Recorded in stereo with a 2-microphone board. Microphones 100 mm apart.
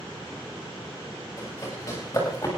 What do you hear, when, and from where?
1.4 s running footsteps: 30° left (ahead or behind), 8.5 m; by 2.5 s 35° left (ahead or behind), 7.5 m